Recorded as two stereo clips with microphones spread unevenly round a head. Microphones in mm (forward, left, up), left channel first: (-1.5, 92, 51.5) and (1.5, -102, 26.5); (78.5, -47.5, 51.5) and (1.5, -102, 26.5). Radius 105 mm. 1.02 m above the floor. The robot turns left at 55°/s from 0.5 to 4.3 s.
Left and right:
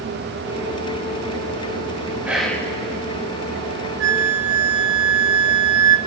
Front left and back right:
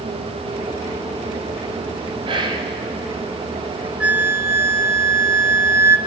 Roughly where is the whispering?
Behind.